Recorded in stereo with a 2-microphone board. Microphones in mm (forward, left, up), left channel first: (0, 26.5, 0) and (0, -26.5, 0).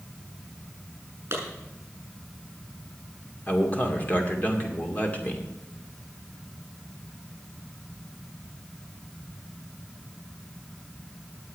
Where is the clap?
50° right (ahead or behind), 7 m.